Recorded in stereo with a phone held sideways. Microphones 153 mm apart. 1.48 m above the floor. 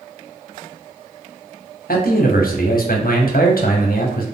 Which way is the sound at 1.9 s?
70° left (ahead or behind).